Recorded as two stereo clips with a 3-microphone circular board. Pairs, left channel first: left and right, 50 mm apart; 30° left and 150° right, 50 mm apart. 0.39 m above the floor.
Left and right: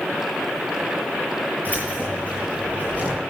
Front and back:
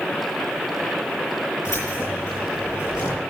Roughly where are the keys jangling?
Ahead left.